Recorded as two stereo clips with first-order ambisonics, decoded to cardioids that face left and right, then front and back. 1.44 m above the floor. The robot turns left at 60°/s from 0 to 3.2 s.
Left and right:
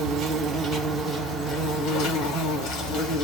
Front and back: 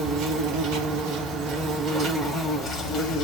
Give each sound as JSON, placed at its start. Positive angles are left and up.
{"t": 0.0, "sound": "an insect", "azimuth_deg": -125, "distance_m": 3.0}